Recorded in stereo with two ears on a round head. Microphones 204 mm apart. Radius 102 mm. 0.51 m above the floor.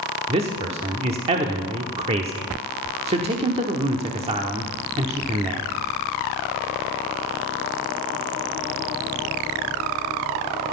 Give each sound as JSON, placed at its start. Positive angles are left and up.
{"t": 0.3, "sound": "a man speaking", "side_deg": -25, "distance_m": 1.1}